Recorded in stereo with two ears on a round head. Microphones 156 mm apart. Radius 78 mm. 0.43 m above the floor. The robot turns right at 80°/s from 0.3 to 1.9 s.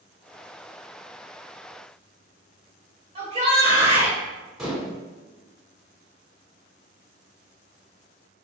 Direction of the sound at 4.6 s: 5° right (ahead or behind).